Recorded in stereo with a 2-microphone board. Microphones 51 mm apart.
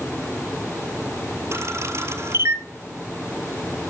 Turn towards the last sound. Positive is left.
turn(degrees=-65)  # may be behind; listen again after turning